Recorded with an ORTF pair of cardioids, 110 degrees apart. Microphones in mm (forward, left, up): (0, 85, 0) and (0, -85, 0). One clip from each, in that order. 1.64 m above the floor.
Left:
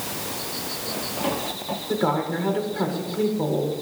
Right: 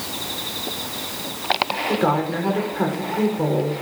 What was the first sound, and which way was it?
A woman speaking, 15° right.